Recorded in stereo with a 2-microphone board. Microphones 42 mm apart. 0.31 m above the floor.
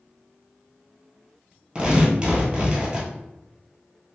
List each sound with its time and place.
1.8 s tearing paper: 20° right (ahead or behind), 1.5 m